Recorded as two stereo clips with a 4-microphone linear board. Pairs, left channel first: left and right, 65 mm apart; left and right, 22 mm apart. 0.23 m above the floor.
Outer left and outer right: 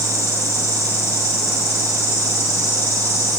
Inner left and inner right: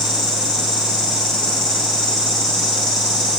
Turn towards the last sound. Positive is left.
turn(degrees=40)  # may be behind; listen again after turning